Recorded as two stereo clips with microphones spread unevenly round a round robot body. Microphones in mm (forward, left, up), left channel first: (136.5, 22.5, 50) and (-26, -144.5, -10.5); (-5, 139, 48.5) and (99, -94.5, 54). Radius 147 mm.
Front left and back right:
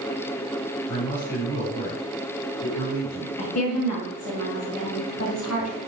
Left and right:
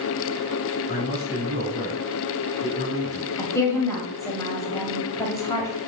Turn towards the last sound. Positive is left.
turn(degrees=40)